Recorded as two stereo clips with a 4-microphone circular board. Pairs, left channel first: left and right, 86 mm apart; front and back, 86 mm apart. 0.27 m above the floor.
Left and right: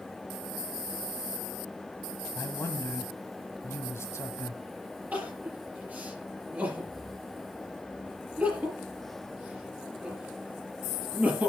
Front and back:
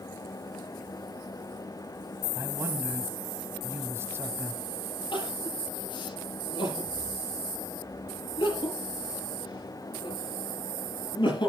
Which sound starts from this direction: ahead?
Crying, at 5.1 s.